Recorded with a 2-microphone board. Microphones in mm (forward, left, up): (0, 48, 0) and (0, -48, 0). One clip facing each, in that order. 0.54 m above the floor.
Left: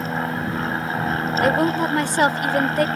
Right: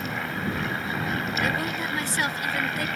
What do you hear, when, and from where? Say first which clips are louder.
0.0 s an aircraft: left 5 dB; 40° left (ahead or behind)
1.4 s a woman speaking: left 9 dB; 60° left (ahead or behind)